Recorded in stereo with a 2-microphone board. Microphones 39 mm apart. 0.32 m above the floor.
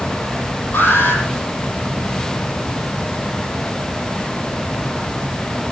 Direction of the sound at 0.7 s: 80° left.